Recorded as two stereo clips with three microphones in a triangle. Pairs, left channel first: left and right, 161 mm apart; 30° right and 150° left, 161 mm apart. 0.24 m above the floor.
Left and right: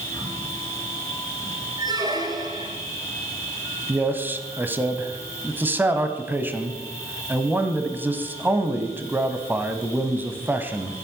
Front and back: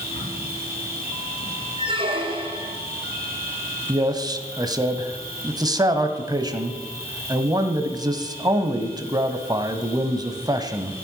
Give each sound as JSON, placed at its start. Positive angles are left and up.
{"t": 0.0, "sound": "an insect", "azimuth_deg": 15, "distance_m": 5.5}
{"t": 1.8, "sound": "a squeak", "azimuth_deg": -155, "distance_m": 1.9}
{"t": 3.9, "sound": "a man speaking", "azimuth_deg": -160, "distance_m": 1.2}